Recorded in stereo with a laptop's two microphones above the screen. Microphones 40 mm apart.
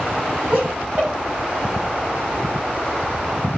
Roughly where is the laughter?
Right.